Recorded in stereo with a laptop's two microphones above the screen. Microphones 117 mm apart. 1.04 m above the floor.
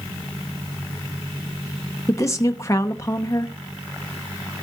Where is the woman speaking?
30° left (ahead or behind), 0.8 m.